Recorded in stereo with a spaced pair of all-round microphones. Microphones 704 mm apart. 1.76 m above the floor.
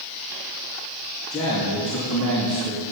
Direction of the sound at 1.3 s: 20° left (ahead or behind).